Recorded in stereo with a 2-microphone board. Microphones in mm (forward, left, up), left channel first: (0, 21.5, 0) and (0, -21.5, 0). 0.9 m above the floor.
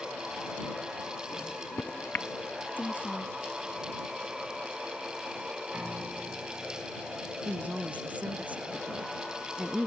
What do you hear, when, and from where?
1.3 s a microwave: 60° left (ahead or behind)
2.8 s a woman speaking: 50° left (ahead or behind)
5.7 s a piano: 30° right (ahead or behind)
7.5 s a woman speaking: 35° right (ahead or behind)